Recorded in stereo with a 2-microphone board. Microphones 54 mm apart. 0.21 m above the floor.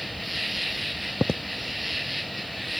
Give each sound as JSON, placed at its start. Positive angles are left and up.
{"t": 0.0, "sound": "an insect", "side_deg": 0}